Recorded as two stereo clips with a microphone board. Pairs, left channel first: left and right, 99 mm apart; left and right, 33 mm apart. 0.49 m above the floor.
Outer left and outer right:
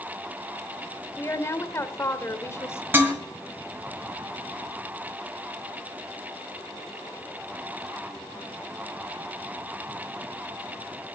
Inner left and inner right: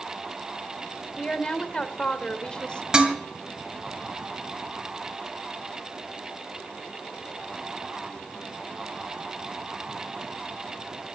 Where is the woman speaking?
30° left (ahead or behind), 1.5 m.